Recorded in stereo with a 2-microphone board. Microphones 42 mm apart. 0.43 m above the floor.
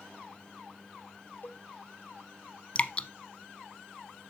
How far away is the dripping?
About 0.6 m.